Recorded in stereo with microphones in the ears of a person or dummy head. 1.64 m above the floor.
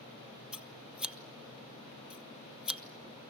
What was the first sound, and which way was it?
Scissors, centre (ahead or behind).